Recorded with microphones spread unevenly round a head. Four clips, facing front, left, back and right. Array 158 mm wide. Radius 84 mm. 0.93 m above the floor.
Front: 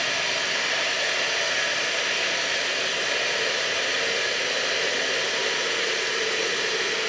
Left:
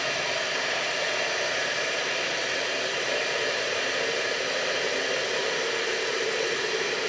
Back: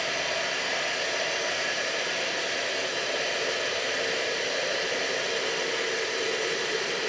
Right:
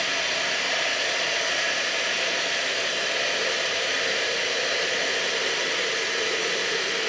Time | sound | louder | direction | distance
0.0 | running water | even, front 1 dB | 80° left | 0.9 m